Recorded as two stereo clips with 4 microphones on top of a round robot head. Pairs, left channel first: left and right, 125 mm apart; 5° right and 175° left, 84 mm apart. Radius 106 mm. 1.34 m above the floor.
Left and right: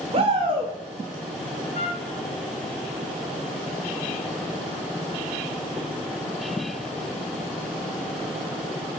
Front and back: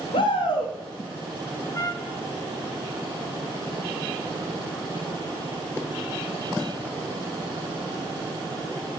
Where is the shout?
40° right, 2.5 m.